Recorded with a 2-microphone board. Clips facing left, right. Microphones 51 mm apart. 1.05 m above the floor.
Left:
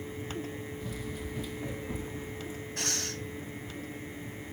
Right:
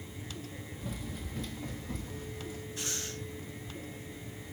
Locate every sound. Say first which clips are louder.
0.8 s running footsteps: left 3 dB; 5° right (ahead or behind), 1.7 m; by 2.7 s 30° left (ahead or behind), 2.5 m
2.8 s breathing: left 6 dB; 70° left (ahead or behind), 2.5 m